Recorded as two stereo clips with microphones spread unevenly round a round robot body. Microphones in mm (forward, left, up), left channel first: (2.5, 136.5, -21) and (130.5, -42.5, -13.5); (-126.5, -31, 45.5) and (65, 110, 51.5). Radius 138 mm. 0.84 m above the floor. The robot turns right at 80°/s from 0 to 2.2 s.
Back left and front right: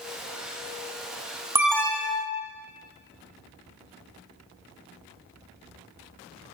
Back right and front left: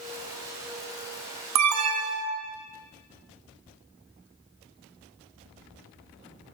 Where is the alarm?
25° left, 1.0 m; by 2.5 s 75° left, 1.0 m.